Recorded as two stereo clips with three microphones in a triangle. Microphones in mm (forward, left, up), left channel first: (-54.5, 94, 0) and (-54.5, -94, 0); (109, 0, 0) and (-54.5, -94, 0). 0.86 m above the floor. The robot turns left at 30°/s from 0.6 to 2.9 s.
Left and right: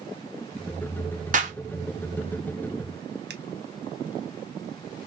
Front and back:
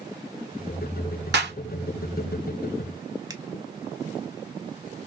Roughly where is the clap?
Behind right.